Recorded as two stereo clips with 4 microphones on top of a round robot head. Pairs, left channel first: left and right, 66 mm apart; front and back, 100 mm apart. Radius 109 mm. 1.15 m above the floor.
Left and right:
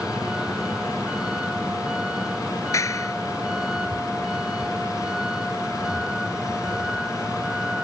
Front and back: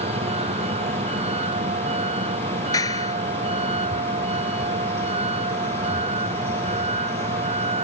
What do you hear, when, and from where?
0.0 s a vehicle: 170° right
2.7 s a clap: 55° left